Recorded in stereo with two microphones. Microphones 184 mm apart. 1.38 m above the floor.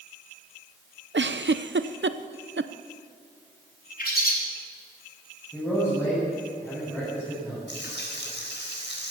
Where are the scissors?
No scissors in this recording.